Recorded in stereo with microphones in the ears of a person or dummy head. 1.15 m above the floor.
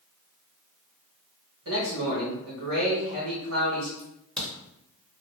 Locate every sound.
1.6 s a man speaking: 65° right (ahead or behind), 1.3 m
4.0 s a crack: 5° left (ahead or behind), 1.0 m